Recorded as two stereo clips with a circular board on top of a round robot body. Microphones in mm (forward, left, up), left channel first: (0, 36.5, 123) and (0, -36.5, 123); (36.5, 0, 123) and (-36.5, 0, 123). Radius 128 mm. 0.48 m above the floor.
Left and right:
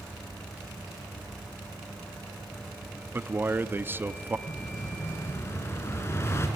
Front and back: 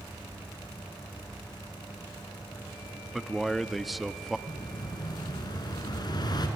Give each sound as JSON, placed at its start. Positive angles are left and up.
{"t": 3.1, "sound": "a man speaking", "azimuth_deg": -95, "distance_m": 1.0}
{"t": 4.5, "sound": "an explosion", "azimuth_deg": 30, "distance_m": 2.5}